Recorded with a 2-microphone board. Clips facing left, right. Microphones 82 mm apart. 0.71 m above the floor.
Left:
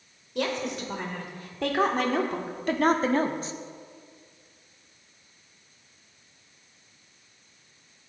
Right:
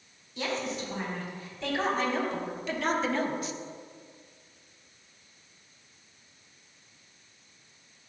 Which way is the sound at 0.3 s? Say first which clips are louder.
Left 3 dB; 75° left (ahead or behind).